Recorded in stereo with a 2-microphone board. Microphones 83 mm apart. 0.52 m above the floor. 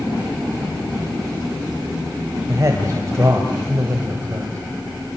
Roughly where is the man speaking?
Right.